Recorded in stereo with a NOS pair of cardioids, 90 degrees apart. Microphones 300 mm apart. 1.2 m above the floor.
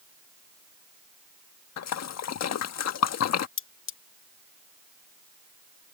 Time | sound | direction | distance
1.8 | a splash | 60° left | ?
3.6 | cutlery clinking | 45° left | ?